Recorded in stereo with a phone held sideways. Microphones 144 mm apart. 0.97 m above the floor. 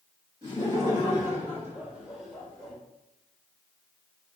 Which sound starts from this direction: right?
Laughter, at 0.4 s.